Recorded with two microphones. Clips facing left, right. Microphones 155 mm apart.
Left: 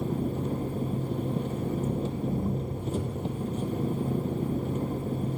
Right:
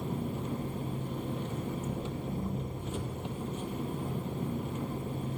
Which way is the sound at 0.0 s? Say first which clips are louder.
Left 6 dB; 35° left (ahead or behind).